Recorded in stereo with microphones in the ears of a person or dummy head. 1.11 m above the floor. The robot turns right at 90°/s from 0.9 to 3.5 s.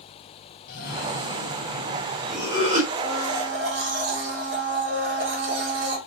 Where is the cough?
45° left, 1.6 m; by 2.8 s 145° right, 1.6 m.